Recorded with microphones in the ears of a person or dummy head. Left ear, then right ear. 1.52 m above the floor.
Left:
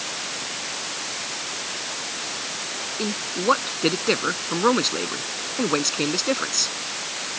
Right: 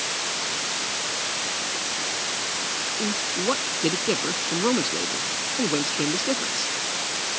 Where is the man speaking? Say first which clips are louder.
Right 1 dB; 55° left (ahead or behind).